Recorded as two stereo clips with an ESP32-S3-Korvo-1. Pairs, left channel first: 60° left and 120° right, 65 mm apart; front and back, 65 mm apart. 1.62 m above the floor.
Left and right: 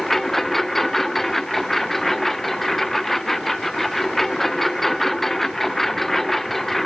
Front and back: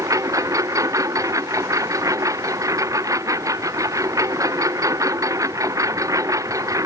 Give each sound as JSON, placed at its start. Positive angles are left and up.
{"t": 0.0, "sound": "a lawn mower", "azimuth_deg": 145}